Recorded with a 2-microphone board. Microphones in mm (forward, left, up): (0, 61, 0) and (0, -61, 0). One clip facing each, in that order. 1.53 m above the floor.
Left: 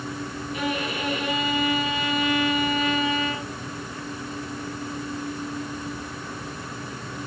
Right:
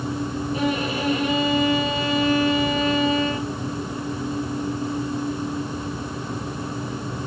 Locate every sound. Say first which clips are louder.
0.5 s a violin: right 3 dB; 35° right (ahead or behind), 3 m